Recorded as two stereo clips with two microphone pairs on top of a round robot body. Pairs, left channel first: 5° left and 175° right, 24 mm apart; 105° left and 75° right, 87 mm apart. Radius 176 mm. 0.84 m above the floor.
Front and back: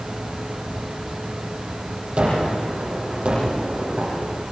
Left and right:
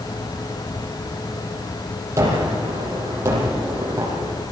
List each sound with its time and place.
2.2 s a gunshot: 135° right, 7.5 m